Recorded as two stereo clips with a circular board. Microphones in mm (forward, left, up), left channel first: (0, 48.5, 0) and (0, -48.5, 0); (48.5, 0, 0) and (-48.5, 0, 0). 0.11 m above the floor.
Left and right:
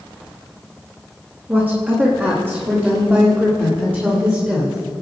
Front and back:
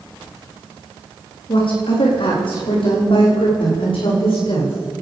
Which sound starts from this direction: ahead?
A woman speaking, at 1.5 s.